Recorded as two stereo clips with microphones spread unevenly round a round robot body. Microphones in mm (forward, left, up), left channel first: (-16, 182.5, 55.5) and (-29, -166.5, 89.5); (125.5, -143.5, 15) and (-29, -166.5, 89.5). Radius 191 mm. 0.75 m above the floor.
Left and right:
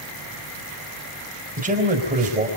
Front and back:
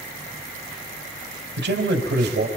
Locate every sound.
1.6 s a man speaking: 160° right, 4 m